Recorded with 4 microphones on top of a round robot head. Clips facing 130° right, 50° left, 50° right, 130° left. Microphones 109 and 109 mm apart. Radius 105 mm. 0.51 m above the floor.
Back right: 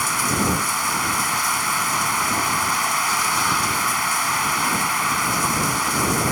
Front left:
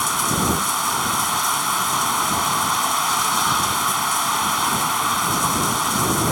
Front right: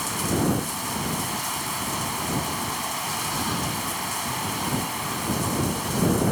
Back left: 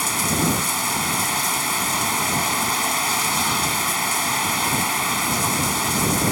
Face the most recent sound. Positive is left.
turn(degrees=125)